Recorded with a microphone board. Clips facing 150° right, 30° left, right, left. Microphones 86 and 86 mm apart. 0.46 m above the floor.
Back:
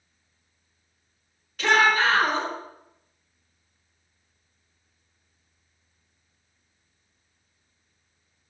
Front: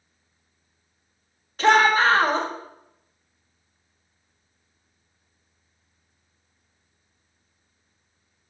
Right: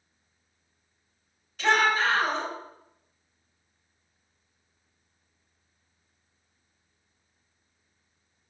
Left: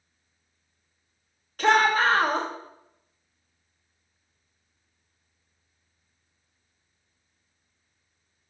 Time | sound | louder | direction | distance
1.6 | a shout | front 3 dB, left 3 dB | 75° left | 1.7 m